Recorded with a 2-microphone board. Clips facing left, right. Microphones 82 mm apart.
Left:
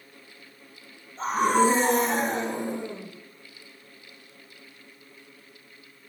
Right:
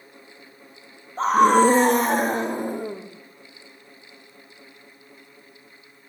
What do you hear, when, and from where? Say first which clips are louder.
1.2 s a scream: right 6 dB; 70° right (ahead or behind), 3 m; by 3.1 s 45° right (ahead or behind), 5 m